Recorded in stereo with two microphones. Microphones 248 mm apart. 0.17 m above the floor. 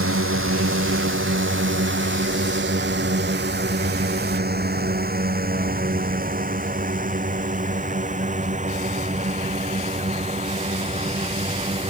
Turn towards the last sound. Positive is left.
turn(degrees=-25)  # may be behind; listen again after turning